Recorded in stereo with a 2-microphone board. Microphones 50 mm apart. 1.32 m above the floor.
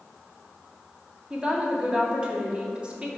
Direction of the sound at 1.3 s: 20° right (ahead or behind).